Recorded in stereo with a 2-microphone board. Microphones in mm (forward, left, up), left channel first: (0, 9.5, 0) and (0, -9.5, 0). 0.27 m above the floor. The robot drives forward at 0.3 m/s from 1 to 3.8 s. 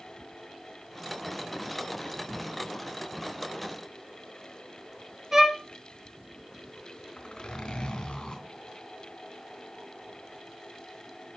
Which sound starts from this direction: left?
A zipper, at 7.2 s.